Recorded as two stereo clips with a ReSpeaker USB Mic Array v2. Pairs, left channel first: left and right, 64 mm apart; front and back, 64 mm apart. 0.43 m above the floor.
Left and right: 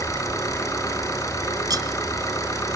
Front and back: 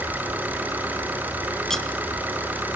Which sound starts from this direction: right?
Cutlery clinking, at 1.7 s.